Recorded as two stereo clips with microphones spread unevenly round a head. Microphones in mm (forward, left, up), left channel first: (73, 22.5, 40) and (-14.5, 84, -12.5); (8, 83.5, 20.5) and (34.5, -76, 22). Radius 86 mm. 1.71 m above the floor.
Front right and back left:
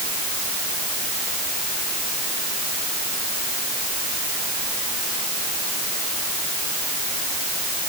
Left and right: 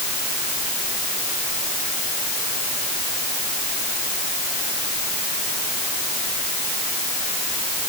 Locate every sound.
Only background noise.